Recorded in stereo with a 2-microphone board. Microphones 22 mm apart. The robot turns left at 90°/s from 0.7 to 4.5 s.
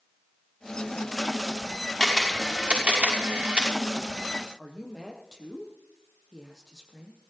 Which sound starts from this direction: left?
A woman speaking, at 4.6 s.